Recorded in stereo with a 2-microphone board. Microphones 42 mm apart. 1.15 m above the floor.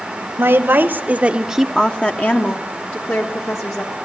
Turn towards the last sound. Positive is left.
turn(degrees=65)  # may be behind; listen again after turning